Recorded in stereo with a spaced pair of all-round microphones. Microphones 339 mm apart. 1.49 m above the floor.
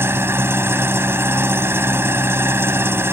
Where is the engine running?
5° right (ahead or behind).